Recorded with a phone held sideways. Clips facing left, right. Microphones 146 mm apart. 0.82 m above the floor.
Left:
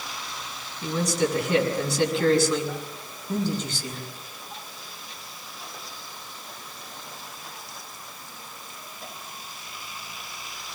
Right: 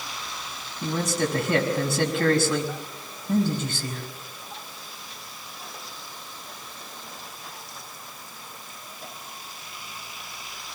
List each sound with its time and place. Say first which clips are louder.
0.8 s a man speaking: left 1 dB; 55° right (ahead or behind), 5.5 m